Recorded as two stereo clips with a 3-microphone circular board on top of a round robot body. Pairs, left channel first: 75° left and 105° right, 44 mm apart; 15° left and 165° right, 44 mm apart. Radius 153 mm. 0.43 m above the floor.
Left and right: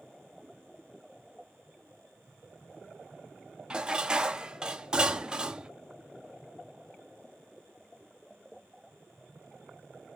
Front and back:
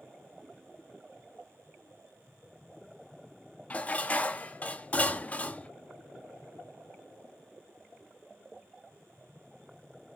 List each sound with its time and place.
3.7 s dishes clattering: 40° right, 0.6 m